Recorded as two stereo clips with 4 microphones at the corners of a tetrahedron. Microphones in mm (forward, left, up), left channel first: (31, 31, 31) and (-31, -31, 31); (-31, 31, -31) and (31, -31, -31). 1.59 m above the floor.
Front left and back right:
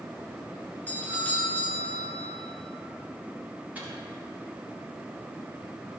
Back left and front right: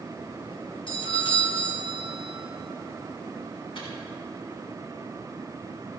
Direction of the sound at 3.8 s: 155° left.